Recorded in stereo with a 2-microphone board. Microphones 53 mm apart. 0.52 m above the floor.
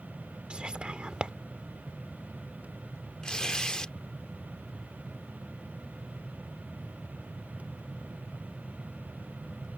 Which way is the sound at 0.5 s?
25° right (ahead or behind).